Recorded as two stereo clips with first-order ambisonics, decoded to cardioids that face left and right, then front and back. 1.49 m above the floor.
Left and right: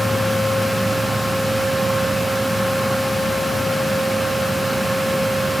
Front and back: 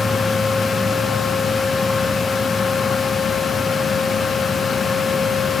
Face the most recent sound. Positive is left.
No sound to turn to.